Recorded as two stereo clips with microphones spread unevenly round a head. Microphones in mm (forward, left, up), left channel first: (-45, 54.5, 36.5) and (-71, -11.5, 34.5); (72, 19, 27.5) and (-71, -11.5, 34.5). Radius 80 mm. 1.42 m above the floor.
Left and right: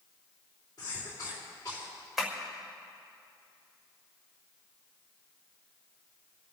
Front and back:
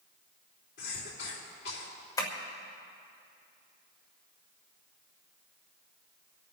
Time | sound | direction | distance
0.8 | a cough | 5° left | 4 m
2.2 | tapping | 20° right | 1.2 m